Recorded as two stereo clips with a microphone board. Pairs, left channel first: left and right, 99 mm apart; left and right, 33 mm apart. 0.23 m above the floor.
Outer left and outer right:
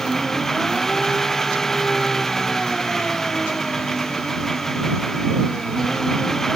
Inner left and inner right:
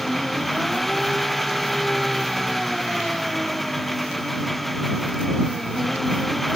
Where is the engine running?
5° left (ahead or behind).